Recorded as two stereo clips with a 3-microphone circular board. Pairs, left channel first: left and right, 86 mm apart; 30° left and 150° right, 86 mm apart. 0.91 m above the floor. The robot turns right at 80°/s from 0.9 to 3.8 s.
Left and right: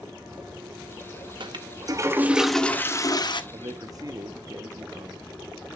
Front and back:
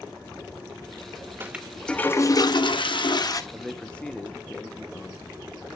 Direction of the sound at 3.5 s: 70° right.